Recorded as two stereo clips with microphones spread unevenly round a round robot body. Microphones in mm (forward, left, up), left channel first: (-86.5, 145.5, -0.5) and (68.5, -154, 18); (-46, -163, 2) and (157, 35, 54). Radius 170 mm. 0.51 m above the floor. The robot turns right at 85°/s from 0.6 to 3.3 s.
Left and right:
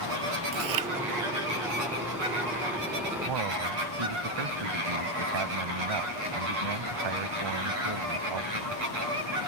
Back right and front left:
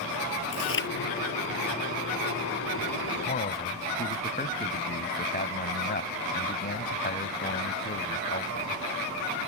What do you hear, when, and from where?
0.5 s chewing: 100° right; by 0.9 s 75° right
3.3 s a man speaking: 85° right; by 8.8 s 80° right